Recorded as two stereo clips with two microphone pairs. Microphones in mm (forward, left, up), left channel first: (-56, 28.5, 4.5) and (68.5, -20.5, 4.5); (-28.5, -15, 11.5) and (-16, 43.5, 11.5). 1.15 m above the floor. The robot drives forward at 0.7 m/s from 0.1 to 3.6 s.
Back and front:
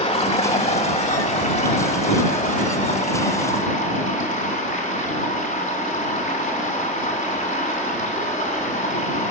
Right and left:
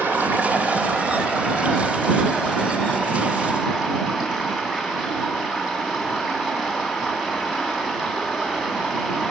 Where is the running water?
135° left, 1.9 m; by 9.3 s 160° left, 4 m.